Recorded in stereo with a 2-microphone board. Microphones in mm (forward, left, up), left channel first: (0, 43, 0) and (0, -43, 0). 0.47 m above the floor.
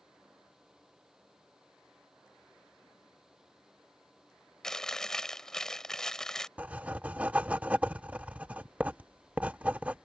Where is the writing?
15° right (ahead or behind).